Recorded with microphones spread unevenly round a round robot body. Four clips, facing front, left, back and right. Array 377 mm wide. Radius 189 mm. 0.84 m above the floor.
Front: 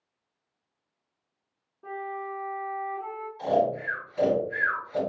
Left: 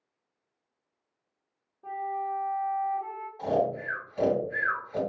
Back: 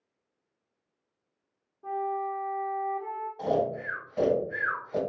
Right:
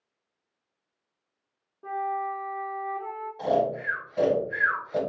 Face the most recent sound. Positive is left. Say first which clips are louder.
# right 2 dB, front 4 dB
turn(degrees=-140)